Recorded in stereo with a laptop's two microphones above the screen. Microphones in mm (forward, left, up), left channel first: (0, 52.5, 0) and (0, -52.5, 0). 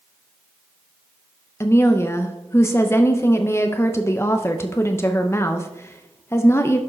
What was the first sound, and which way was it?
A woman speaking, 25° left (ahead or behind).